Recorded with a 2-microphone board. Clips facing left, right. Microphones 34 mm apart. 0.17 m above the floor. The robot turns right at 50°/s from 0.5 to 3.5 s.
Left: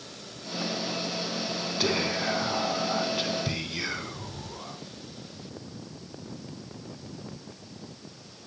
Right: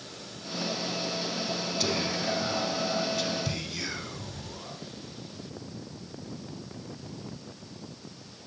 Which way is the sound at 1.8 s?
50° left.